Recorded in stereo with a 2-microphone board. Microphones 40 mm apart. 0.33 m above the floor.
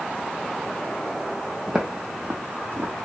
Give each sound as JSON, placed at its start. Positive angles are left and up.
{"t": 1.7, "sound": "footsteps", "side_deg": -15, "distance_m": 0.9}